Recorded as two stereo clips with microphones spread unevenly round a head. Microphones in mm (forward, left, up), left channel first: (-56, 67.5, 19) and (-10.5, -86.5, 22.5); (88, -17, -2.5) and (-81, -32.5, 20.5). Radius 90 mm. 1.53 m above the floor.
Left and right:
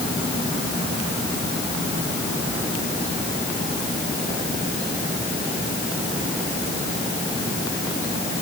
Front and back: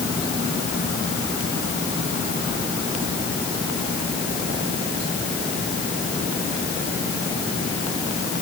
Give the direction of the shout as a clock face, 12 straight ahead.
No shout in this recording.